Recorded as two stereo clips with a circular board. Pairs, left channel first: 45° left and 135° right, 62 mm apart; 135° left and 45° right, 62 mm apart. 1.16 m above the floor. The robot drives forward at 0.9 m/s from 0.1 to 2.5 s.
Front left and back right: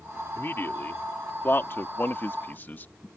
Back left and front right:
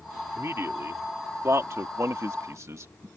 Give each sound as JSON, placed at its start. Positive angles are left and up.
{"t": 0.4, "sound": "a man speaking", "azimuth_deg": -5}